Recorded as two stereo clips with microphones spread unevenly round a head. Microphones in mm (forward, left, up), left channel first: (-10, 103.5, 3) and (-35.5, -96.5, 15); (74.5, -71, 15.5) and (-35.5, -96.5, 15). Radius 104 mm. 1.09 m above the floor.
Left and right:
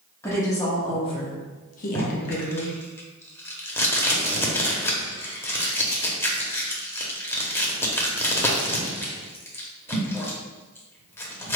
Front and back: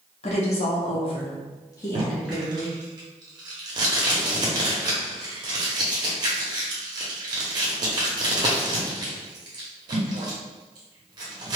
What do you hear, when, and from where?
0.2 s a woman speaking: 10° left, 1.1 m; by 2.8 s 120° left, 0.9 m
1.9 s tape being pulled: 160° left, 0.6 m